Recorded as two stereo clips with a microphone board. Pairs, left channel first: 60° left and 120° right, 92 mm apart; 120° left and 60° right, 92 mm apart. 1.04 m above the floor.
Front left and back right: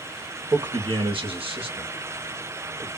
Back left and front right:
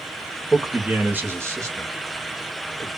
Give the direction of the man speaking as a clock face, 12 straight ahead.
5 o'clock.